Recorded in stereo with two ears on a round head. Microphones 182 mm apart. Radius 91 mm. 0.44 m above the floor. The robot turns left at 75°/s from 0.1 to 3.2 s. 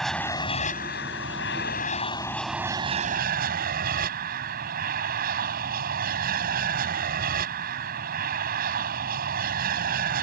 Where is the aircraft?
Straight behind; by 10.2 s 55° right.